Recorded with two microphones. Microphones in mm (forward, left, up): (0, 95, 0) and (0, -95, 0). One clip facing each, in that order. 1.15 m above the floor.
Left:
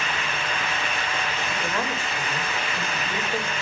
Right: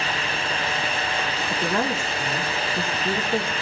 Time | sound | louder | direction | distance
1.5 | a woman speaking | right 6 dB | 45° right (ahead or behind) | 3.5 m